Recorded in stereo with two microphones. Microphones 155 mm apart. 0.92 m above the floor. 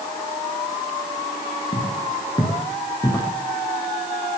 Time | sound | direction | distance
1.7 | footsteps | 25° left (ahead or behind) | 3.5 m